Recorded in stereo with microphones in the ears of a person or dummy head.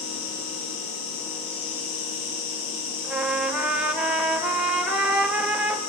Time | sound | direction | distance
0.0 | an insect | 80° left | 7.5 m
3.0 | a trumpet | 5° right (ahead or behind) | 1.2 m